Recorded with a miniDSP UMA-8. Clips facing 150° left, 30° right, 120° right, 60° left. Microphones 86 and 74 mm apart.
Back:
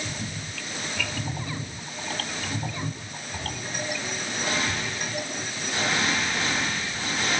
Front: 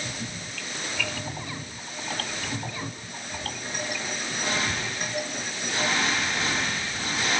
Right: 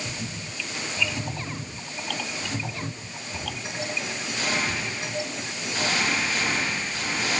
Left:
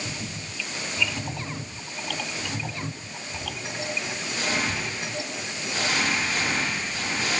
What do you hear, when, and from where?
Only background noise.